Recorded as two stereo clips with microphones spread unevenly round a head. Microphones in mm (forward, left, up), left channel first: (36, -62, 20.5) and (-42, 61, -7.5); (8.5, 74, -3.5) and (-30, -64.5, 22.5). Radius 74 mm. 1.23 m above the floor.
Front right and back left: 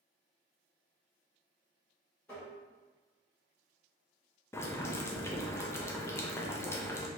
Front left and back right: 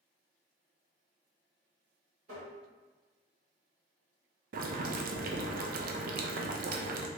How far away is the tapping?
About 1.5 m.